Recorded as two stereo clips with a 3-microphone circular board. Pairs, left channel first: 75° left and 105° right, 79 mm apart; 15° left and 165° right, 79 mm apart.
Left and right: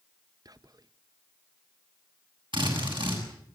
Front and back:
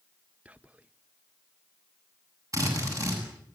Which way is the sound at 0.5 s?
100° right.